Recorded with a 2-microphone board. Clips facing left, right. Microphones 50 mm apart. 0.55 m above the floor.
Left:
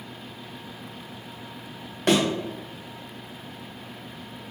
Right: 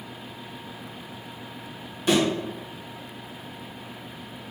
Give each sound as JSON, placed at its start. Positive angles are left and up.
{"t": 2.1, "sound": "a thud", "side_deg": 65, "distance_m": 1.4}